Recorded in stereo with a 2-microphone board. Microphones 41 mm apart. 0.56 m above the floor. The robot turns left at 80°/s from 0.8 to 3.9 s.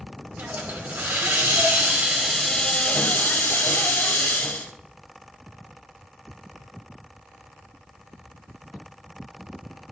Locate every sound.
0.4 s a hiss: 55° right, 1.4 m; by 4.7 s 60° left, 1.4 m